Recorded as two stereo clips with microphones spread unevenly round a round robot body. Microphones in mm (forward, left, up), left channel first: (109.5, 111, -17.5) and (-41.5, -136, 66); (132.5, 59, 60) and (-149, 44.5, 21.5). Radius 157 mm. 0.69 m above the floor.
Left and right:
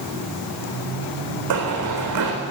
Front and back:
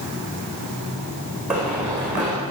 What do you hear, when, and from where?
1.5 s running footsteps: 90° right, 3.5 m